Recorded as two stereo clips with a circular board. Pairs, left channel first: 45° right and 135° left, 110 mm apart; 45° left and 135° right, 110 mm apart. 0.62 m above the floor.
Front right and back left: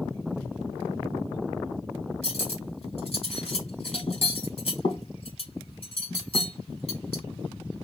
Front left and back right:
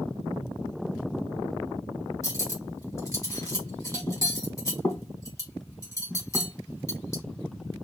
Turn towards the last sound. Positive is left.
turn(degrees=-15)